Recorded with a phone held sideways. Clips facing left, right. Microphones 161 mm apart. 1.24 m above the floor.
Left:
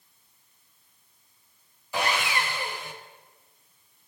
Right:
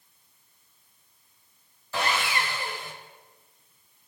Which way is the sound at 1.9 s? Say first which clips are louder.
Even; 15° left (ahead or behind).